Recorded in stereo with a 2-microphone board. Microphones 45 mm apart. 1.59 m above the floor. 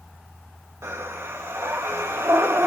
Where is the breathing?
70° right (ahead or behind), 1.5 m.